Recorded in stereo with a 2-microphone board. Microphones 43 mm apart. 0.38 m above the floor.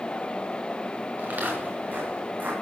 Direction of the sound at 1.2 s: 40° right (ahead or behind).